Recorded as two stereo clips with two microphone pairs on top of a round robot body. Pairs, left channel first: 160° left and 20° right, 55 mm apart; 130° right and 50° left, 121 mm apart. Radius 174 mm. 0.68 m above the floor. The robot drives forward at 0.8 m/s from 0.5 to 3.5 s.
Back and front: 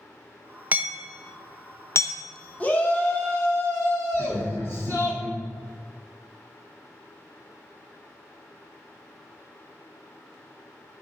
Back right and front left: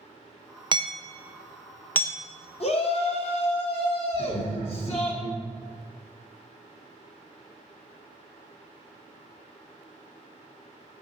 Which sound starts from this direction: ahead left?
Hammering, at 0.7 s.